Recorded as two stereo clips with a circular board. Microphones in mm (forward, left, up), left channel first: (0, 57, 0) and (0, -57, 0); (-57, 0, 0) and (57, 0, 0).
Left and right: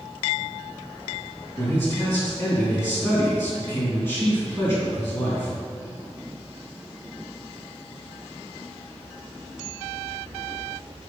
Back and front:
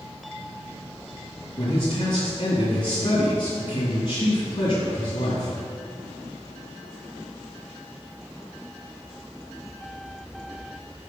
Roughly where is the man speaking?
Behind left.